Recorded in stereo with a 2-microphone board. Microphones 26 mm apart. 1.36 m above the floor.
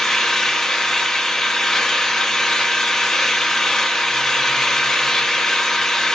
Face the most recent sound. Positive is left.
turn(degrees=20)  # may be behind; listen again after turning